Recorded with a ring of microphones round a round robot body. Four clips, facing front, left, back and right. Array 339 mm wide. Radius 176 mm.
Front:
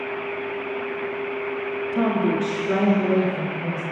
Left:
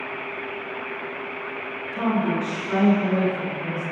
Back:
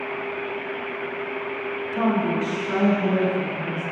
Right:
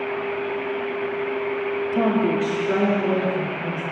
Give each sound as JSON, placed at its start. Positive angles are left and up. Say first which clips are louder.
{"t": 1.9, "sound": "a woman speaking", "louder": "right 2 dB, front 1 dB", "azimuth_deg": -60, "distance_m": 1.9}